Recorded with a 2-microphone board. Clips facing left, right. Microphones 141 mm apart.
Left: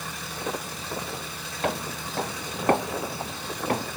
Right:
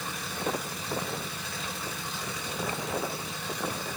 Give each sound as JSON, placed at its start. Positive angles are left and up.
{"t": 1.6, "sound": "footsteps", "side_deg": 65}